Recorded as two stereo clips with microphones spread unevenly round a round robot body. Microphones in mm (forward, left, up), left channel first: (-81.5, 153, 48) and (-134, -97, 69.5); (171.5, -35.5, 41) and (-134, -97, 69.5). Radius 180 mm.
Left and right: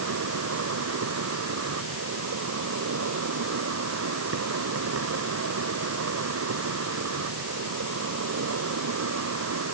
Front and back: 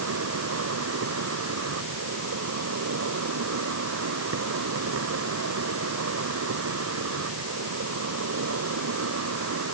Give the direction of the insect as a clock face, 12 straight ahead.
4 o'clock.